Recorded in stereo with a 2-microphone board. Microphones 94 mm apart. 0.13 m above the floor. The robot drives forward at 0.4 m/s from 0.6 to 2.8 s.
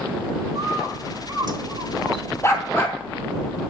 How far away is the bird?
About 0.9 m.